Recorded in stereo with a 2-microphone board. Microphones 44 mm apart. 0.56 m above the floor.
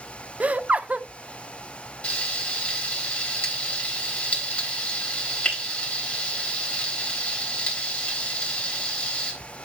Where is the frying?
25° left (ahead or behind), 3.5 m.